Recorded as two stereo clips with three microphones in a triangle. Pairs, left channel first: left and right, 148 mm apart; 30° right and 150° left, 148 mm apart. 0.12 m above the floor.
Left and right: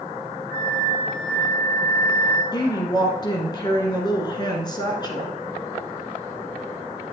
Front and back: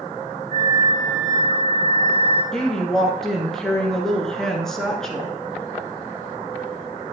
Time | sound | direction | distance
0.5 | a flute | 100° left | 4.5 m
2.5 | a woman speaking | 55° left | 1.5 m